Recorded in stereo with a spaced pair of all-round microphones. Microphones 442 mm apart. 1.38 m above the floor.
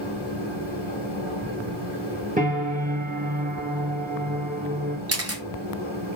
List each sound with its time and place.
0.0 s a machine running: 90° left, 1.7 m
2.4 s a piano: 15° right (ahead or behind), 1.0 m
5.1 s a camera shutter: 30° right (ahead or behind), 0.8 m